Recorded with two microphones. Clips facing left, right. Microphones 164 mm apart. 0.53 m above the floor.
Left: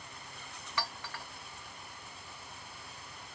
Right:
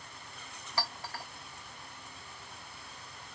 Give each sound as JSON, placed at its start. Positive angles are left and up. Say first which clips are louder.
{"t": 0.8, "sound": "a clink", "louder": "right 2 dB", "side_deg": -35, "distance_m": 0.8}